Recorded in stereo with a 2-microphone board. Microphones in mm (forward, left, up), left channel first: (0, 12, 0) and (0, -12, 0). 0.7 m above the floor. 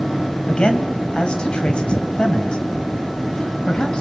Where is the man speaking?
40° left (ahead or behind), 3.5 m.